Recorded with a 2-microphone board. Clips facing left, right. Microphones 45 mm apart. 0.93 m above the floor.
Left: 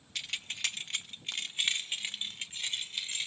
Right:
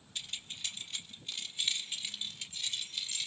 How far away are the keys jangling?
About 0.8 m.